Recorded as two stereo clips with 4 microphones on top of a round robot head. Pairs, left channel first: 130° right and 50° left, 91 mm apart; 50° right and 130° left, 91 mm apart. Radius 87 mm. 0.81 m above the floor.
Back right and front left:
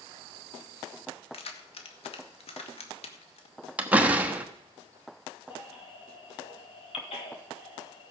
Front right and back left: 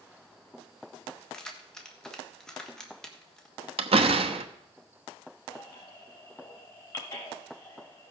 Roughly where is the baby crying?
Right.